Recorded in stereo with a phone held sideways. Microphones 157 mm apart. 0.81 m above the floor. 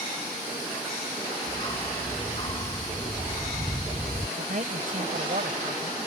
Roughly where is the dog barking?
Left.